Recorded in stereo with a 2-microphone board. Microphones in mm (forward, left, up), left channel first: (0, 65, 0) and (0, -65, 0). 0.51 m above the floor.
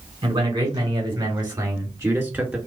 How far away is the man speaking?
About 2.5 m.